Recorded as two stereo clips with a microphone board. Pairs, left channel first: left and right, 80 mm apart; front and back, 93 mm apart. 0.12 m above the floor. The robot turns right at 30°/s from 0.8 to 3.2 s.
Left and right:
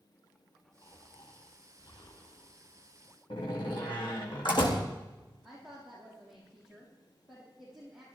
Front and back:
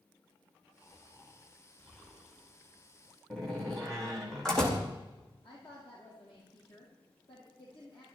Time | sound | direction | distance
0.8 | snoring | 45° left | 4 m
3.3 | a door slam | 85° left | 4 m
5.4 | a woman speaking | straight ahead | 5 m